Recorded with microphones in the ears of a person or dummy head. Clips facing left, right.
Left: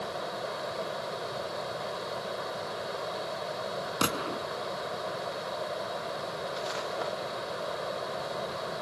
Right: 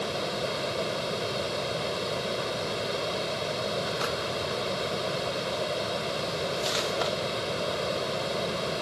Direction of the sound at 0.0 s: 40° right (ahead or behind).